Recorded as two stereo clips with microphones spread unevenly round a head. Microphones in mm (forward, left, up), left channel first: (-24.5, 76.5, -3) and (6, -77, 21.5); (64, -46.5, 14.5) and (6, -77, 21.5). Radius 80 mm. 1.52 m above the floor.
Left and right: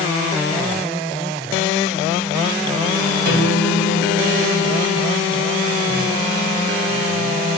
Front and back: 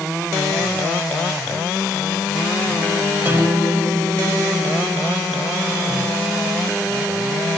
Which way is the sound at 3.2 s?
90° right.